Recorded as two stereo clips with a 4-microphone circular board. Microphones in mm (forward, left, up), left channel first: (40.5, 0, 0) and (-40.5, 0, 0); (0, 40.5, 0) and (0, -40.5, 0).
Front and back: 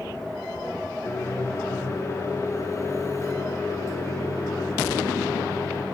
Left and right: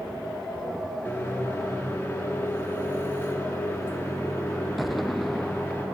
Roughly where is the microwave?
Ahead left.